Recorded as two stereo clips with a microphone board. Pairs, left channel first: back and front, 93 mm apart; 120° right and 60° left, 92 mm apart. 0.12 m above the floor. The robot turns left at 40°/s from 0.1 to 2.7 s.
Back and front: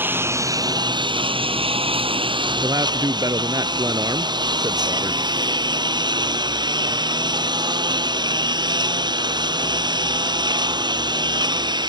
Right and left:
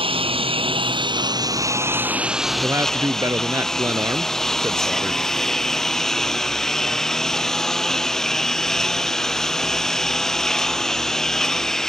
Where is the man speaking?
15° left; by 5.2 s 10° left.